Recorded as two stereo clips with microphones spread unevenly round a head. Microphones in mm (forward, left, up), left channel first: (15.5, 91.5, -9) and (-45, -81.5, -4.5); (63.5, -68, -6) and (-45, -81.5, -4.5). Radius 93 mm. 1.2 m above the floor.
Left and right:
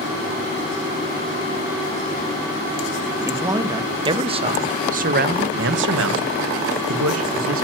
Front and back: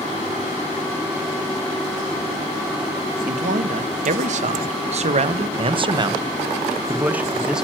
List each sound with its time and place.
3.2 s a man speaking: 175° left, 1.6 m; by 7.7 s 90° right, 1.4 m